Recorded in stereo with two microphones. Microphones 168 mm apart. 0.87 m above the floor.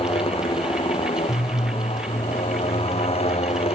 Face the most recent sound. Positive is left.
turn(degrees=35)  # may be behind; listen again after turning